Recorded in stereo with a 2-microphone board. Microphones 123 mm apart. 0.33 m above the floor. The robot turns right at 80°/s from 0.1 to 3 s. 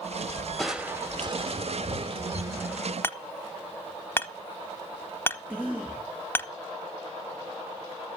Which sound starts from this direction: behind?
Crushing, at 0.6 s.